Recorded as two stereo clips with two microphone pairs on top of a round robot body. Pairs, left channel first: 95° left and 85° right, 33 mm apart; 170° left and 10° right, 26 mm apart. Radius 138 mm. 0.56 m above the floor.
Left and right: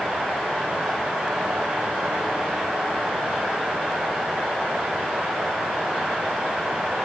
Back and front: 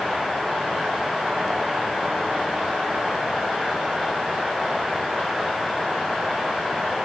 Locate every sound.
Only background noise.